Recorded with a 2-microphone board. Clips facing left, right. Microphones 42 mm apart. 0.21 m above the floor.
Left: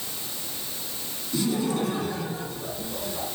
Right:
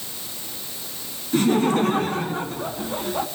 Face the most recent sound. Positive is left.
turn(degrees=-55)  # may be behind; listen again after turning